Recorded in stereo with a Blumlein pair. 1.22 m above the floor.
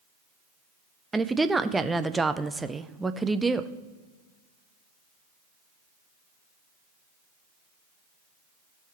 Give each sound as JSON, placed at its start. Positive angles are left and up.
{"t": 1.1, "sound": "a woman speaking", "azimuth_deg": -10, "distance_m": 0.6}